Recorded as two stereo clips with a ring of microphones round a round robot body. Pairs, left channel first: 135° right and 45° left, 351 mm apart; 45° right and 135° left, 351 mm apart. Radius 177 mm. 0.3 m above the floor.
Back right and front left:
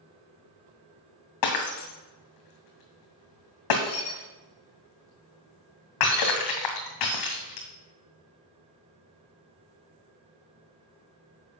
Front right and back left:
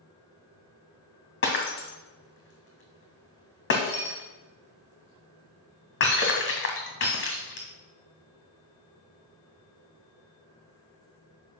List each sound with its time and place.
1.4 s breaking glass: 105° right, 2 m